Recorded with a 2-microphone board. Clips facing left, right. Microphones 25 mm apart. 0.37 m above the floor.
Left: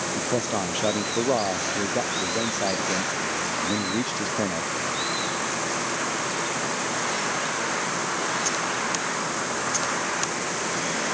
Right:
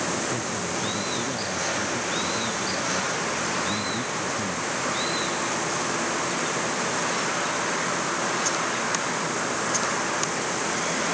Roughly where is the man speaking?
Left.